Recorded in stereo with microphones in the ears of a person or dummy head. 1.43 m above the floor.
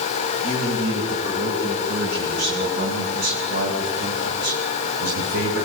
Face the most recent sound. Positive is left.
turn(degrees=-55)  # may be behind; listen again after turning